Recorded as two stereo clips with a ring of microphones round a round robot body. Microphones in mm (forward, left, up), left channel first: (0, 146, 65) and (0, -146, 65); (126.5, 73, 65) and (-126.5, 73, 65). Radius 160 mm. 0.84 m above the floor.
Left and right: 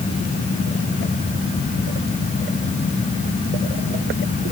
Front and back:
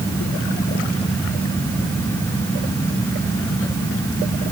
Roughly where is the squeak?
No squeak in this recording.